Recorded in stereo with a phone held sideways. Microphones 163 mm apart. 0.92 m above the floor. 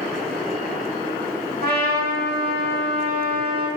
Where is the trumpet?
75° right (ahead or behind), 0.8 m.